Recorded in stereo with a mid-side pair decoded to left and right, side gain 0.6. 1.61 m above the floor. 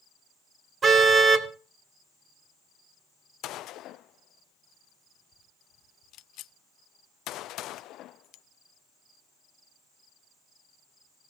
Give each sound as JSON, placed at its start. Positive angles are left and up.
{"t": 0.8, "sound": "a car horn", "azimuth_deg": -35, "distance_m": 2.5}
{"t": 3.4, "sound": "a gunshot", "azimuth_deg": 60, "distance_m": 0.5}